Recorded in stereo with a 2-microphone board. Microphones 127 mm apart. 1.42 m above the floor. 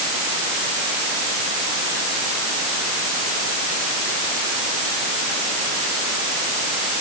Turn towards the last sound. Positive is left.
No sound to turn to.